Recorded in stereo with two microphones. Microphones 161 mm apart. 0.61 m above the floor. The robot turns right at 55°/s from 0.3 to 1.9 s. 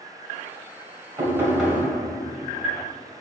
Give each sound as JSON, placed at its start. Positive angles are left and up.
{"t": 1.2, "sound": "knocking", "azimuth_deg": -25, "distance_m": 2.5}